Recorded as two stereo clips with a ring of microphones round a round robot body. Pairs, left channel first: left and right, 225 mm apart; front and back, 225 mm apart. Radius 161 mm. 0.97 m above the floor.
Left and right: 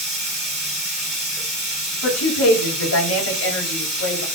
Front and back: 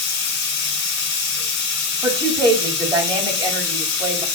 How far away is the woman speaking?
About 6 m.